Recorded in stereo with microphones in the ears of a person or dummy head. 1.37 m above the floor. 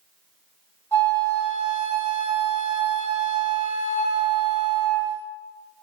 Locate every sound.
0.9 s a flute: 10° left (ahead or behind), 1.6 m